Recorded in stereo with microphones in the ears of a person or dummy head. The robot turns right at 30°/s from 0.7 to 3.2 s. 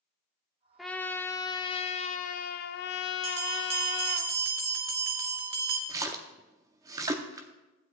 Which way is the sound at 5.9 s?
20° right (ahead or behind).